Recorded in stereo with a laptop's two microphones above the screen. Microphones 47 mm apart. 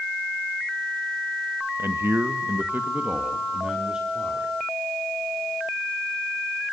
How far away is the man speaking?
About 1.4 m.